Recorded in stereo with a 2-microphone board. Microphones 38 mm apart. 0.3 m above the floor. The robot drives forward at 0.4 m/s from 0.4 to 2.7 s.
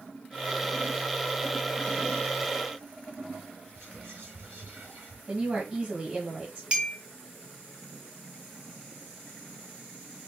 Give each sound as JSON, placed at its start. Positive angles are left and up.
{"t": 3.8, "sound": "whispering", "side_deg": -65, "distance_m": 3.0}
{"t": 5.3, "sound": "a woman speaking", "side_deg": -35, "distance_m": 2.0}
{"t": 6.7, "sound": "a clink", "side_deg": -30, "distance_m": 1.4}